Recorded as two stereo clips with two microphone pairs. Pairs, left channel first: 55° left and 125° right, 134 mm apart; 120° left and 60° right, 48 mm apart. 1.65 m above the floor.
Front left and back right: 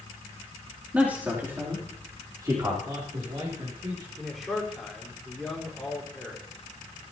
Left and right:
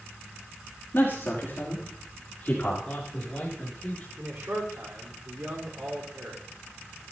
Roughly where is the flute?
No flute in this recording.